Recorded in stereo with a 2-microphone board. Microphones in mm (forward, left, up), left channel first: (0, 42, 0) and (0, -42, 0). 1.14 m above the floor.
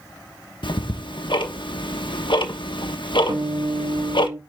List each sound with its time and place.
0.6 s ticking: 80° left, 1.0 m
3.3 s a guitar: 65° right (ahead or behind), 1.1 m